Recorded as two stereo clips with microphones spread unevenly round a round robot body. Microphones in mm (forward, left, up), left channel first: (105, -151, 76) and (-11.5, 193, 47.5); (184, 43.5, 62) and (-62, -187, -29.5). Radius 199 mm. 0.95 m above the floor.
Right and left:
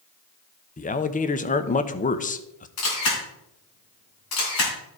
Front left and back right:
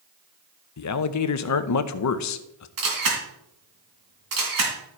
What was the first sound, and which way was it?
A man speaking, straight ahead.